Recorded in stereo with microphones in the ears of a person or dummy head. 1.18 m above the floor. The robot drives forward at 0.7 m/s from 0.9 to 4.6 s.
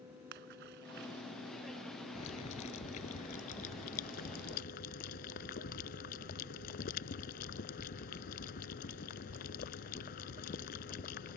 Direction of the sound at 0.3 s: 60° right (ahead or behind).